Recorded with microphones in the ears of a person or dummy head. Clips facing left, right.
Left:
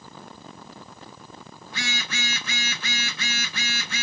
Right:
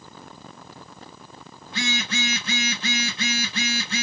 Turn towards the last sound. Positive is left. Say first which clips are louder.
# right 6 dB
turn(degrees=-25)  # may be behind; listen again after turning